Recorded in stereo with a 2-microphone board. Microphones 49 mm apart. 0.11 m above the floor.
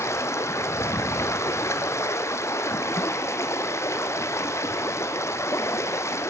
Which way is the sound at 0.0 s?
70° left (ahead or behind).